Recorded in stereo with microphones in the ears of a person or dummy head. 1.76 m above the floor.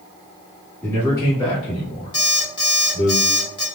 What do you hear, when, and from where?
0.8 s a man speaking: 15° left (ahead or behind), 1.8 m; by 3.1 s 85° left, 1.5 m
2.1 s an alarm clock: 25° left (ahead or behind), 0.9 m